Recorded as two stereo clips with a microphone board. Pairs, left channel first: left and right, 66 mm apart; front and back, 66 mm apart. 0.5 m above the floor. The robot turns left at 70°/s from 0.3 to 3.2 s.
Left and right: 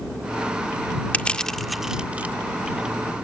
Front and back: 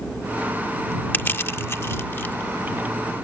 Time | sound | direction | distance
1.1 | crushing | 40° left | ?